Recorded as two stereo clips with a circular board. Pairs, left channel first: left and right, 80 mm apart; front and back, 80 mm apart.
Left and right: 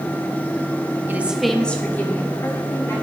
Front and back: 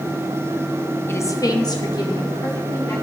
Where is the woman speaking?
40° right, 0.8 m; by 2.9 s 35° left, 2.5 m.